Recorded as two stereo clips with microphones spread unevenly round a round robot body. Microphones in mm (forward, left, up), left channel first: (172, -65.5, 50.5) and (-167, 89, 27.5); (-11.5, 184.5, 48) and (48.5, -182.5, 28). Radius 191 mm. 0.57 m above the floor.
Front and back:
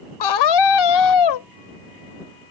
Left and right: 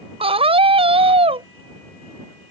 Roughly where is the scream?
Ahead.